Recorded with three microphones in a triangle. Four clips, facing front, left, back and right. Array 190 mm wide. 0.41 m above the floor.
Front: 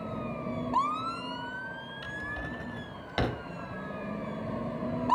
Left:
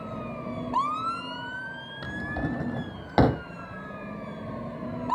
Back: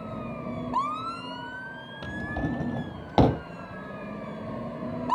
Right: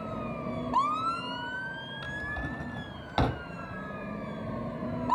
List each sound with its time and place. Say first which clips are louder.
2.0 s a drawer: left 7 dB, back 9 dB; 145° left, 0.6 m